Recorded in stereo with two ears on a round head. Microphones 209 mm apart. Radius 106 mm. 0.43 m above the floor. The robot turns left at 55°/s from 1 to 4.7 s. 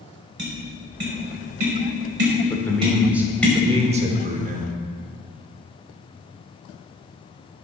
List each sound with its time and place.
0.4 s tapping: 45° right (ahead or behind), 2.0 m; by 3.5 s 10° left (ahead or behind), 2.0 m
2.5 s a man speaking: 25° left, 0.9 m; by 4.8 s 95° right, 0.9 m